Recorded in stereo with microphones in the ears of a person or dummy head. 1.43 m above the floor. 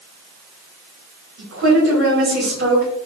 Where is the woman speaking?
80° right, 2 m.